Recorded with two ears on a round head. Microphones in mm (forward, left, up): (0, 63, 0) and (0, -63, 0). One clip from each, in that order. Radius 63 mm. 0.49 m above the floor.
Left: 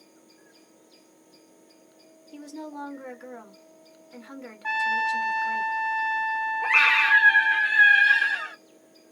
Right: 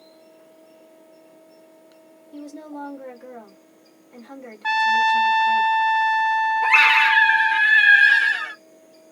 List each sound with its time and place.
2.3 s a woman speaking: 30° left (ahead or behind), 1.6 m
4.6 s a trumpet: 60° right (ahead or behind), 0.6 m
6.6 s a scream: 35° right (ahead or behind), 0.8 m